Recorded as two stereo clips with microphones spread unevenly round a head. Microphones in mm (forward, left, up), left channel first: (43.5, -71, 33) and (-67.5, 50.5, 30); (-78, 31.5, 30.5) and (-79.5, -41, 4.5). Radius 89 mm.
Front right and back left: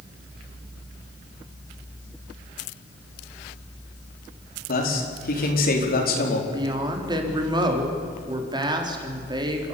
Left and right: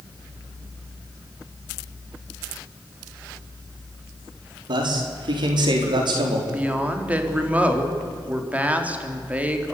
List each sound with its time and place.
4.7 s a man speaking: 85° right, 4.5 m
6.5 s a woman speaking: 160° right, 3.5 m